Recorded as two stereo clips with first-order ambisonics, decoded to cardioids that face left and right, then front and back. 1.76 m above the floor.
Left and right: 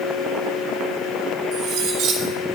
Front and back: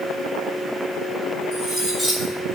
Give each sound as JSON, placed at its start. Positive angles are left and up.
{"t": 1.5, "sound": "cutlery clinking", "azimuth_deg": -70, "distance_m": 2.5}